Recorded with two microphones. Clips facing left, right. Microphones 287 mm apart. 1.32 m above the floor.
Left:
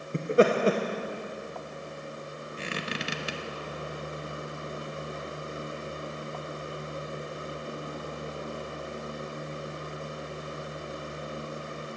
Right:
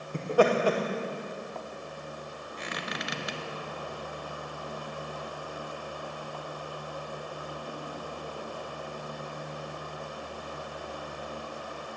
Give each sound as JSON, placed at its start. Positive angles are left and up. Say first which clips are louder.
{"t": 0.1, "sound": "laughter", "louder": "left 2 dB", "side_deg": 25, "distance_m": 1.0}
{"t": 2.6, "sound": "a squeak", "louder": "left 3 dB", "side_deg": 35, "distance_m": 0.9}